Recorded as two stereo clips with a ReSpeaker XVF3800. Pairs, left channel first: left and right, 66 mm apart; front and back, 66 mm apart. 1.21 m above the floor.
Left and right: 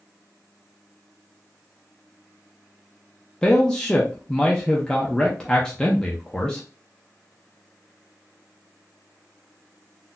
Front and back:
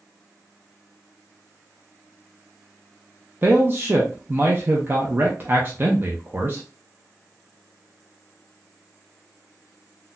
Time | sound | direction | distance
3.4 | a man speaking | 160° left | 0.6 m